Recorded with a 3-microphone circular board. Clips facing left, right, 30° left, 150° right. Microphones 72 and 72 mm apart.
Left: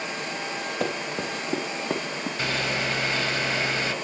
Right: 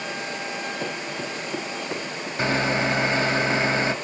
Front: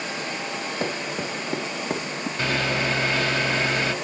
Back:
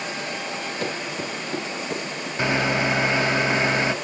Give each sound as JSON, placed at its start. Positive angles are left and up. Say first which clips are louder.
{"t": 0.8, "sound": "running footsteps", "louder": "left 2 dB, front 1 dB", "azimuth_deg": 90, "distance_m": 5.0}
{"t": 2.4, "sound": "a microwave", "louder": "right 6 dB, back 3 dB", "azimuth_deg": -105, "distance_m": 0.8}